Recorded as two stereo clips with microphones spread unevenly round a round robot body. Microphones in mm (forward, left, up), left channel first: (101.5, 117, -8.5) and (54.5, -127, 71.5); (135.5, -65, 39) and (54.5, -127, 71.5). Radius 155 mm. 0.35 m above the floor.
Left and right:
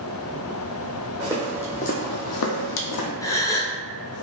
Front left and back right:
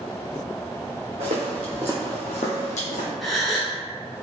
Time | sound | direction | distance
1.2 | footsteps | 170° right | 0.9 m
3.2 | a gasp | 90° left | 0.7 m